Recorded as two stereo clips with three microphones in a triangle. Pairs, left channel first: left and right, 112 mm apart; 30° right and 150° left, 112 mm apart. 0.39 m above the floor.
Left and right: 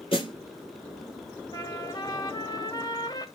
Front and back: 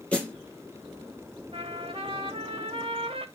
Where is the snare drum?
50° left, 3 m.